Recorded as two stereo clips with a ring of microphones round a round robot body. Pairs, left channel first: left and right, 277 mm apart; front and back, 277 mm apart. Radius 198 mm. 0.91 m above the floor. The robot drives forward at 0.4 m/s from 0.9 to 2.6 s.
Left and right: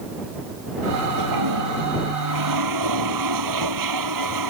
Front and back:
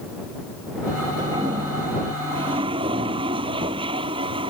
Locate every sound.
1.2 s a toilet flushing: 100° right